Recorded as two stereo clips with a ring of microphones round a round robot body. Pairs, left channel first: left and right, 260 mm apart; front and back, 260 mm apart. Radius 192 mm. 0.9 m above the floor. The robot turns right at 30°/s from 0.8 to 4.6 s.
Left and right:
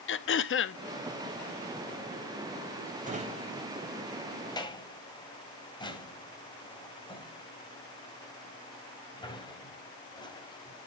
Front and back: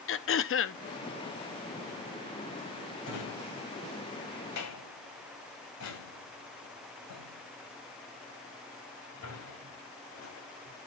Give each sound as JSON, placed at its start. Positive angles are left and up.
{"t": 0.1, "sound": "throat clearing", "azimuth_deg": 45, "distance_m": 0.7}
{"t": 3.0, "sound": "a drawer", "azimuth_deg": -30, "distance_m": 1.9}